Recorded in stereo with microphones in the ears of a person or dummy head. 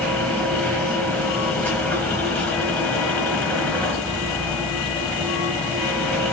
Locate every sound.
0.0 s a machine running: 5° left (ahead or behind), 1.3 m